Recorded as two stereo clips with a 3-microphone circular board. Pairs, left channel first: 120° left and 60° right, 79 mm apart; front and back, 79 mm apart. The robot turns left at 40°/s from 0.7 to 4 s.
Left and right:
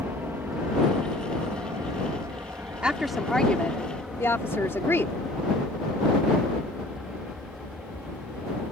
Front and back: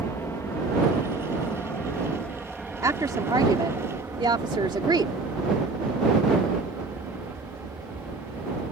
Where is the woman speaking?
135° right; by 5.1 s 175° left.